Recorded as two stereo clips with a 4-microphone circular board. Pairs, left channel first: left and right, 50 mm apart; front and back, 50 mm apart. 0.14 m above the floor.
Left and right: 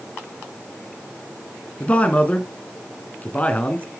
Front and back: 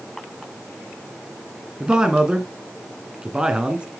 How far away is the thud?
I don't hear a thud.